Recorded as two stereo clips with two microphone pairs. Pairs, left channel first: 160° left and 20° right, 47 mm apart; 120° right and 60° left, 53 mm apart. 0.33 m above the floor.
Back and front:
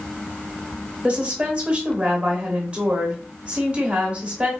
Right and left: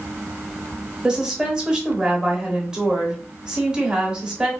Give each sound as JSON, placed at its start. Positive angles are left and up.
{"t": 1.0, "sound": "a woman speaking", "azimuth_deg": 0, "distance_m": 0.9}